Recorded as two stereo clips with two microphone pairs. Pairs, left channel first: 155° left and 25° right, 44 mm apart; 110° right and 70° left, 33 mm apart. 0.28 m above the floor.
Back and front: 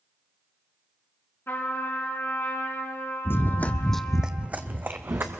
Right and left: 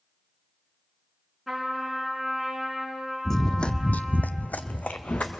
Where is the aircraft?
No aircraft in this recording.